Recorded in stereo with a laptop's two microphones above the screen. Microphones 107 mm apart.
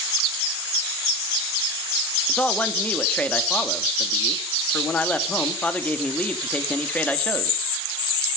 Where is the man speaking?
15° left (ahead or behind), 2.5 m.